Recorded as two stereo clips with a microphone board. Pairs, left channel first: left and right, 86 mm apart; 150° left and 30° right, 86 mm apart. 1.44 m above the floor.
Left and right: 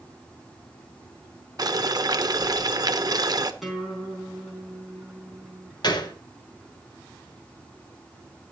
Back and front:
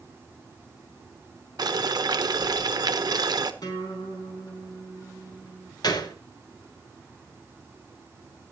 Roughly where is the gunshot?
Behind left.